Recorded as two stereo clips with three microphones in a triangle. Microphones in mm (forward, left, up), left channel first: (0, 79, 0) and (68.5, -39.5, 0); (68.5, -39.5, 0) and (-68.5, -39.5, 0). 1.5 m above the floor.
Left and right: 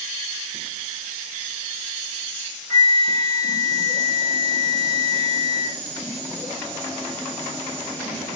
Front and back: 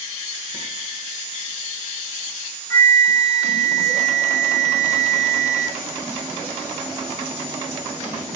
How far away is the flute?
About 1.5 m.